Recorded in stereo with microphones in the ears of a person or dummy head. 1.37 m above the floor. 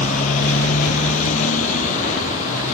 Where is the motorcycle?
40° left (ahead or behind); by 2.7 s 45° left (ahead or behind).